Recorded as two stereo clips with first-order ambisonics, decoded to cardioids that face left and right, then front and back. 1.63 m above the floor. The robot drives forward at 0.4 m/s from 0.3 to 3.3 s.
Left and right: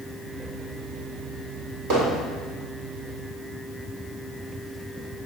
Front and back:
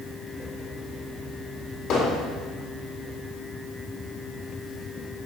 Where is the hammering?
50° right, 4 m.